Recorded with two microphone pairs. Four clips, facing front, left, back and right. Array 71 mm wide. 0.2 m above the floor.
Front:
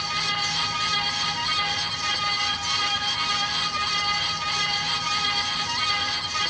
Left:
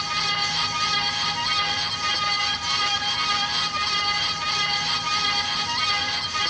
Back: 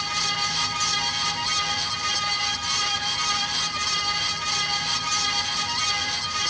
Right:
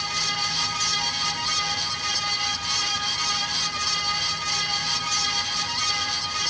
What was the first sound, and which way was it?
Only background noise.